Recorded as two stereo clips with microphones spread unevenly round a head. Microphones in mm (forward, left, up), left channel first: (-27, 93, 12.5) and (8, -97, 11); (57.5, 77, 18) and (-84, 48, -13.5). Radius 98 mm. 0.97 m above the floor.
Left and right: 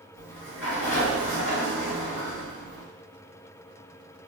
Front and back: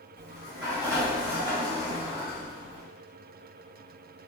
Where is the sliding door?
120° left, 2.5 m.